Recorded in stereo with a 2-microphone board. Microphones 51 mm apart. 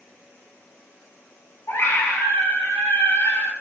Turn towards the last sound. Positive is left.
turn(degrees=85)